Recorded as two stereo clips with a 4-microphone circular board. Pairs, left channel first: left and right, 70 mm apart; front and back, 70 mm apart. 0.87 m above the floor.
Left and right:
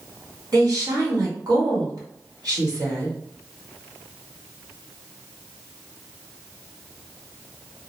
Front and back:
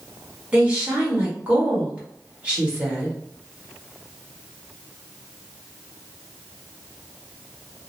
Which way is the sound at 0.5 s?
110° right.